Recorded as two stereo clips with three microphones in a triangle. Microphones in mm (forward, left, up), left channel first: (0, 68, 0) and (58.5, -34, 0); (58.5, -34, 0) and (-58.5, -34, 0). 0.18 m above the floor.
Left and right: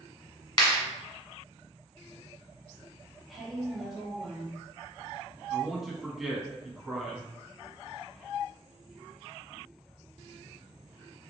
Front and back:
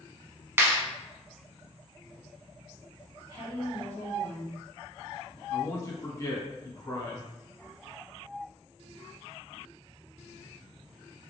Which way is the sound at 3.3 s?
150° right.